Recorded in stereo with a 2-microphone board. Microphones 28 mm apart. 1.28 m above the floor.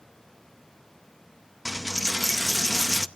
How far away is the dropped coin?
About 0.6 m.